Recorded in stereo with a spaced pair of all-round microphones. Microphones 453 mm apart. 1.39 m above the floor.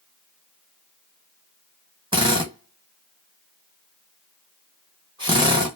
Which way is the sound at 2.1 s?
10° right (ahead or behind).